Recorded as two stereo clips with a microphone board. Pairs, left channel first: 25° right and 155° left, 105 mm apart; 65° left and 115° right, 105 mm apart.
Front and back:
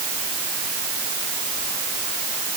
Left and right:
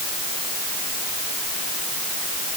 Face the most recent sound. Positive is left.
No sound to turn to.